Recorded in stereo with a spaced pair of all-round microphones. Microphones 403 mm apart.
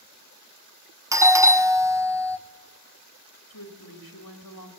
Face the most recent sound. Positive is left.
turn(degrees=55)  # may be behind; listen again after turning